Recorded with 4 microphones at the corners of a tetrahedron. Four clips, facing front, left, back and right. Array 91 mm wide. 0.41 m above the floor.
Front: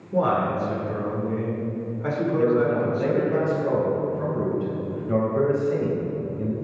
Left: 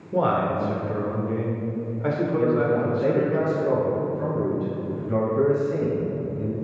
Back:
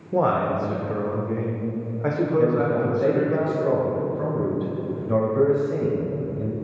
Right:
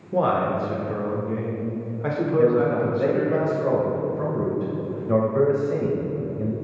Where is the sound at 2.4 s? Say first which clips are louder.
Right 4 dB, front 1 dB; 110° right, 1.9 m.